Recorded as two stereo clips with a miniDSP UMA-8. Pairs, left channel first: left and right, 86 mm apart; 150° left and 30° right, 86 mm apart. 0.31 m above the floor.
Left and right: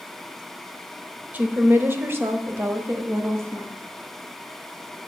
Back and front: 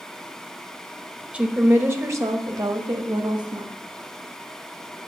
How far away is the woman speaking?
About 0.9 m.